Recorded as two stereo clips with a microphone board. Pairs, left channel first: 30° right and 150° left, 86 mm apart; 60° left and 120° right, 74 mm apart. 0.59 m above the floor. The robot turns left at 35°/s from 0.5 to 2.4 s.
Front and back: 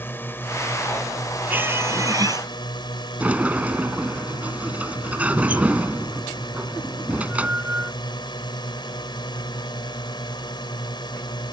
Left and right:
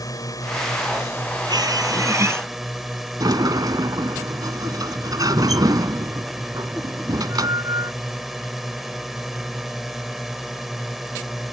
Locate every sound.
0.0 s a drone: 30° left; by 11.5 s 35° right
1.5 s a squeak: 140° right; by 2.5 s 175° right
3.2 s a sliding door: 140° right